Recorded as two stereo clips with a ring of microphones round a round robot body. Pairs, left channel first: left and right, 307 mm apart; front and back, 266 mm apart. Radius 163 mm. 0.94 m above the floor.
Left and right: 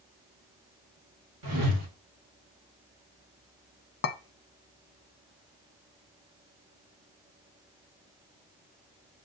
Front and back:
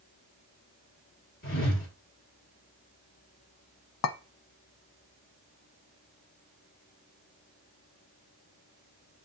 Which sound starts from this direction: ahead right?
A whoosh, at 1.4 s.